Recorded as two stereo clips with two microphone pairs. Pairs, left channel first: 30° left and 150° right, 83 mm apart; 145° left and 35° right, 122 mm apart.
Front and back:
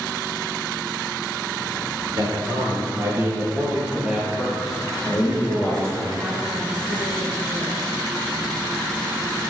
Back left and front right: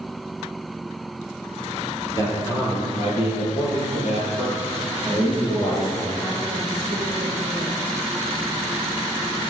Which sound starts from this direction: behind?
A man speaking, at 2.2 s.